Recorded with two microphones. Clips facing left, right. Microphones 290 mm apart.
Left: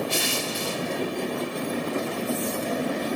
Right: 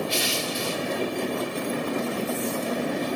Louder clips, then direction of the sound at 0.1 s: Even; 60° left (ahead or behind).